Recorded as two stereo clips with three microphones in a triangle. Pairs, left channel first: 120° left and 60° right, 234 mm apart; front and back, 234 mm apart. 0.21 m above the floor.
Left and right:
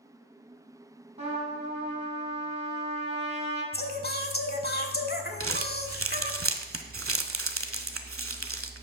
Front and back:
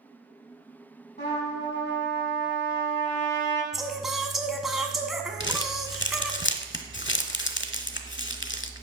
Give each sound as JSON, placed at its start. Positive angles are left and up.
{"t": 1.2, "sound": "a trumpet", "azimuth_deg": -15, "distance_m": 1.7}
{"t": 3.7, "sound": "singing", "azimuth_deg": 90, "distance_m": 0.6}
{"t": 5.4, "sound": "crumpling", "azimuth_deg": -40, "distance_m": 0.6}